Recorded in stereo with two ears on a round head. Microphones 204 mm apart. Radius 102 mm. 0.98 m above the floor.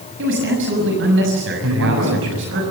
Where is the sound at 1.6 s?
65° right (ahead or behind), 9.5 m.